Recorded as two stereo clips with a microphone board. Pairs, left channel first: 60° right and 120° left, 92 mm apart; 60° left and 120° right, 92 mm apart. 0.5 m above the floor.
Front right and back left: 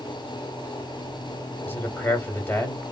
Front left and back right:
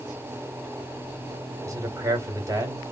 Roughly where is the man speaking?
Right.